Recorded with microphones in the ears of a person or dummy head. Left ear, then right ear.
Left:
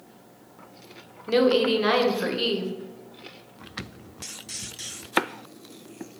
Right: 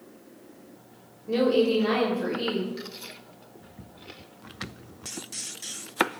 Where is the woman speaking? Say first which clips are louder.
Left 2 dB; 55° left (ahead or behind), 0.7 m.